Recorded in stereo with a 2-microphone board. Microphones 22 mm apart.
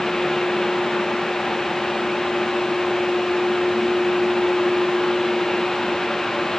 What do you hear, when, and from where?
Only background noise.